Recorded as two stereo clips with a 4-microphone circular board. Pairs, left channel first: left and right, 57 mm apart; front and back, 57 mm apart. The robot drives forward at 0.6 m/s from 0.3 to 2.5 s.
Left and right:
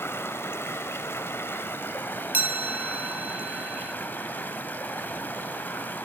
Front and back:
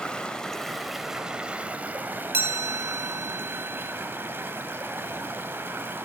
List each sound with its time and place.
0.0 s running water: 70° left, 1.3 m; by 6.0 s 140° left, 1.6 m
2.3 s a chime: 140° right, 1.1 m